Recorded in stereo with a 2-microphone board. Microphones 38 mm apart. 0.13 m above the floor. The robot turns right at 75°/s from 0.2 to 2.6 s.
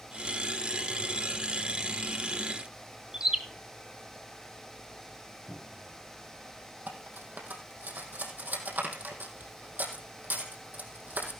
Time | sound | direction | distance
3.1 | a bird | 20° right (ahead or behind) | 1.5 m
5.5 | a cupboard door | 5° left (ahead or behind) | 9 m
6.9 | cutlery clinking | 60° right (ahead or behind) | 3 m